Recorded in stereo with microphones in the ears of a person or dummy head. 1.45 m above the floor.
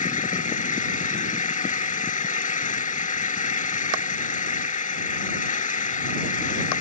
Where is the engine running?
40° left (ahead or behind).